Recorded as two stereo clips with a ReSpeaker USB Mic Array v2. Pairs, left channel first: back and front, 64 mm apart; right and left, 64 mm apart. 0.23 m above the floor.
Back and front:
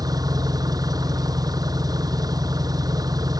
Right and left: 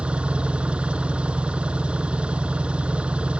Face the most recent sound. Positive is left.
turn(degrees=15)